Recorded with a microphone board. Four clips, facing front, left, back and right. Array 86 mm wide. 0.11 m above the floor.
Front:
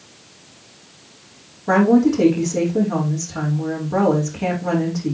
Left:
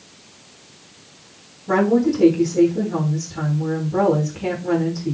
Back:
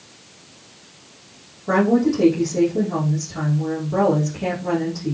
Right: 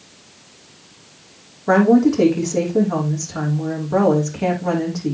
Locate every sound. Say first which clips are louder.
1.7 s a woman speaking: right 4 dB, front 3 dB; 75° right, 5.5 m